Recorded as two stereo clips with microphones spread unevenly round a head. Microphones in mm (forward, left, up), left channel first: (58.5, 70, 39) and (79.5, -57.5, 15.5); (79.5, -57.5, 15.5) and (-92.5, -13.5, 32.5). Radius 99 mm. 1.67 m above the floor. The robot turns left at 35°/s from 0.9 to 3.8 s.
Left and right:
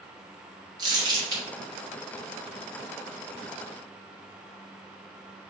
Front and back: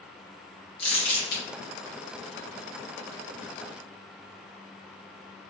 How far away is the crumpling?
About 1.2 m.